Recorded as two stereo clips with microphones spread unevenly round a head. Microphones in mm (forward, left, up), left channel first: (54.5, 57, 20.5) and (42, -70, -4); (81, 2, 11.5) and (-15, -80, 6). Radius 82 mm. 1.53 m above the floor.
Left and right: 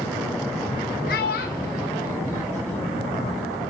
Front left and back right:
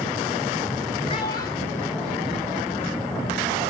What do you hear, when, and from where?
1.1 s a child speaking: 100° left, 1.7 m; by 3.0 s 140° left, 3 m